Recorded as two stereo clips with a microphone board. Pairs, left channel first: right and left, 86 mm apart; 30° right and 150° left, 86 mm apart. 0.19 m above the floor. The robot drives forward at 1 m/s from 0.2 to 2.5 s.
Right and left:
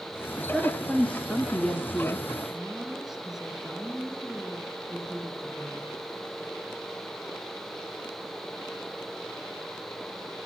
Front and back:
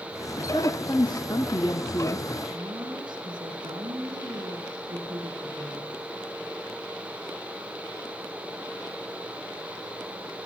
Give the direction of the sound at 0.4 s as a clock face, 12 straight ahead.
12 o'clock.